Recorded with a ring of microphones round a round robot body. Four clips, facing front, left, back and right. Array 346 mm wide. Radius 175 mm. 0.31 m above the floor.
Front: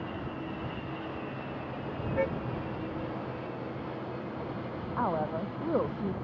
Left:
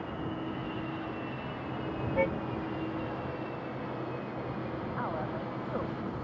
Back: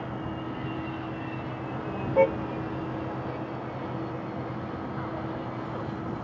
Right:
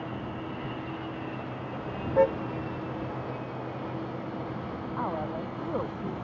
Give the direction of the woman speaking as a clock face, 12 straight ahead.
1 o'clock.